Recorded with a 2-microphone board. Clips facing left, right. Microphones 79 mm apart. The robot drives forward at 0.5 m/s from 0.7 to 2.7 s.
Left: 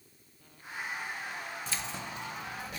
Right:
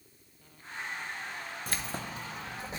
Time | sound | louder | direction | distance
1.7 | keys jangling | right 1 dB | 50° right (ahead or behind) | 0.7 m